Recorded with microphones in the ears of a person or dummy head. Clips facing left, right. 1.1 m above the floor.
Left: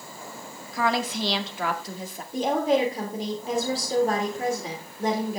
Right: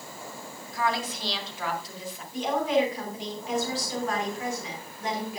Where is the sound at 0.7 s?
70° left (ahead or behind), 1.9 m; by 2.2 s 45° left (ahead or behind), 2 m.